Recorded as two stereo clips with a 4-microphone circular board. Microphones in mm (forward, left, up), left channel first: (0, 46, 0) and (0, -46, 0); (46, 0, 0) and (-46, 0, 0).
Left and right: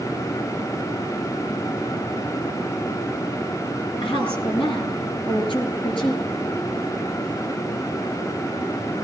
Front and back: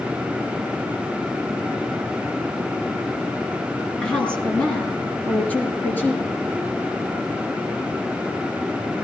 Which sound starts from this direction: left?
A woman speaking, at 4.0 s.